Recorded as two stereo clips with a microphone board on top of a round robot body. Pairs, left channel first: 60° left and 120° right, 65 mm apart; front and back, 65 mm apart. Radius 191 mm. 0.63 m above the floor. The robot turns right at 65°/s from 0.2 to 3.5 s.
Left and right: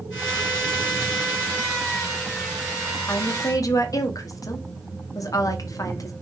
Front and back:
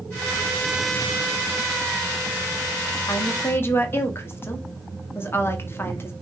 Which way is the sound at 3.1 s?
20° left.